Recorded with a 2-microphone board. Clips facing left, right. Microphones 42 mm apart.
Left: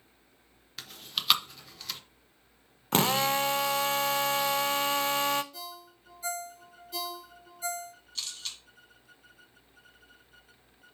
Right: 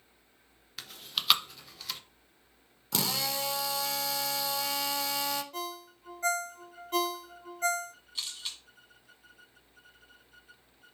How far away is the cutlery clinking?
I don't hear cutlery clinking.